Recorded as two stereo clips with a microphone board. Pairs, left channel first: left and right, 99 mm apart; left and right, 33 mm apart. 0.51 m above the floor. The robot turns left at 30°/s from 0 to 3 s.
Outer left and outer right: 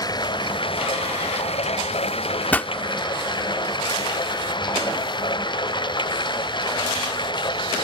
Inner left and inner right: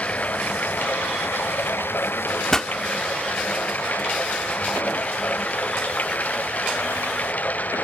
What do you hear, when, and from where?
0.0 s running water: 140° left; by 7.8 s 50° left
2.5 s a pop: 15° left (ahead or behind); by 2.7 s 20° left (ahead or behind)